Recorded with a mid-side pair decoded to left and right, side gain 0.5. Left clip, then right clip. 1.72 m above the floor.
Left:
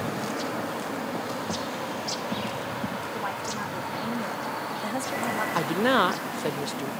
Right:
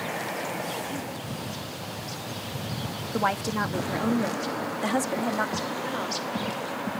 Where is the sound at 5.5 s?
65° left.